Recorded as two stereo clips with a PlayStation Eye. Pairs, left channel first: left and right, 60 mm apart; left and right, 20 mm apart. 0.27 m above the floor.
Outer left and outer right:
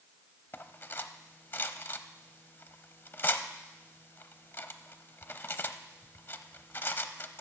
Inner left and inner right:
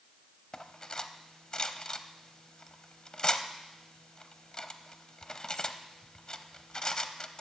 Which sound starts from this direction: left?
Cutlery clinking, at 0.5 s.